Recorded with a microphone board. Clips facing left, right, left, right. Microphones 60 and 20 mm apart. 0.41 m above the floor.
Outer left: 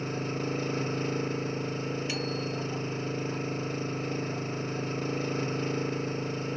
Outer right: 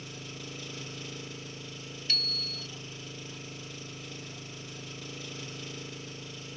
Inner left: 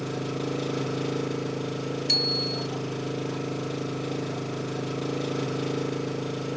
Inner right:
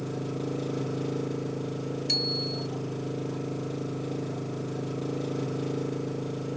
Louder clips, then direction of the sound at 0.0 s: Outer left 12 dB, inner left 2 dB; 40° left (ahead or behind).